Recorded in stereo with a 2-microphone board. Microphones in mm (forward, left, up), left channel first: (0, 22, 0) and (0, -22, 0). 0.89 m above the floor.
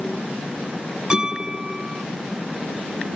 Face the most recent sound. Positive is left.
turn(degrees=-15)  # may be behind; listen again after turning